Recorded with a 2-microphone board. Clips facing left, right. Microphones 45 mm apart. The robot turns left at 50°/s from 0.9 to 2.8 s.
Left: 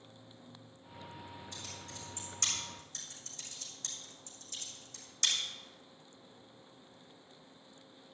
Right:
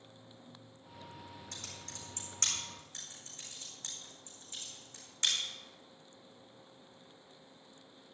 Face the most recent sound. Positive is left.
turn(degrees=-25)  # may be behind; listen again after turning